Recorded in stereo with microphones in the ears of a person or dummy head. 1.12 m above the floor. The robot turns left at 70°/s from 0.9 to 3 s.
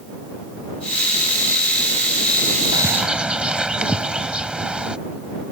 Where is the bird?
25° right (ahead or behind); by 5.0 s 5° right (ahead or behind).